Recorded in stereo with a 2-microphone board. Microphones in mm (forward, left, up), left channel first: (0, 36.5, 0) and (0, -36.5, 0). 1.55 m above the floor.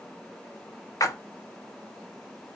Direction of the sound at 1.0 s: 50° left (ahead or behind).